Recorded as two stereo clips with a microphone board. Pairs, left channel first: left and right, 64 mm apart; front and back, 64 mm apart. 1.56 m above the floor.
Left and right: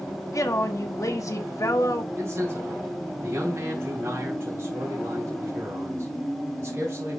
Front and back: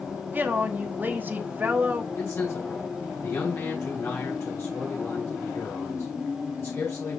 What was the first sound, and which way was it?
A woman speaking, 120° left.